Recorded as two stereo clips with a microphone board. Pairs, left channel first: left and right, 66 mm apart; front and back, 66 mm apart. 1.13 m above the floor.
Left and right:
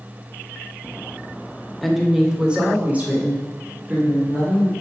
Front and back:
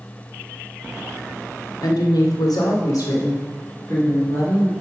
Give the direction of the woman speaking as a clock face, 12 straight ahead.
12 o'clock.